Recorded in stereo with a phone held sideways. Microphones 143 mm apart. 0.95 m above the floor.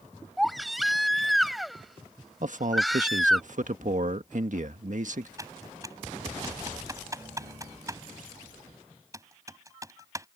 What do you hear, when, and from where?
0.4 s a baby crying: centre (ahead or behind)
2.4 s a man speaking: 60° right (ahead or behind)
5.4 s typing on a keyboard: 20° right (ahead or behind)